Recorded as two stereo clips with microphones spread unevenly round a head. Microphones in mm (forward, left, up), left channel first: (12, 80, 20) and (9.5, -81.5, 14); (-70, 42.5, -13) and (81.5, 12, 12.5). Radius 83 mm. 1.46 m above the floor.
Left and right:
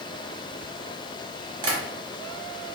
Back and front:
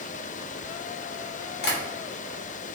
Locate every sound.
1.6 s tapping: 155° right, 0.8 m